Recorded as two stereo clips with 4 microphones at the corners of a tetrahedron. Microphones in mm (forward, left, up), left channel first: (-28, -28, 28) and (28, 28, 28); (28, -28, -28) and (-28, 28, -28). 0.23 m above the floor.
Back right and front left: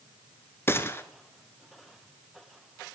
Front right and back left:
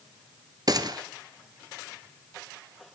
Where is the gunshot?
165° left, 1.0 m.